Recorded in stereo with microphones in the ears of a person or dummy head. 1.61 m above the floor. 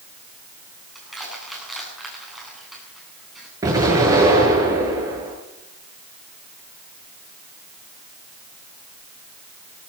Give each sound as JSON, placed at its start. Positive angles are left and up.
{"t": 0.9, "sound": "crushing", "side_deg": -5, "distance_m": 10.0}
{"t": 3.6, "sound": "an explosion", "side_deg": -25, "distance_m": 8.5}